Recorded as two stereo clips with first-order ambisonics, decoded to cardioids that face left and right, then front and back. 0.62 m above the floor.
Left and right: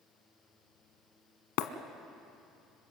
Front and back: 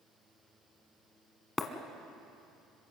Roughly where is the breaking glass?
Left.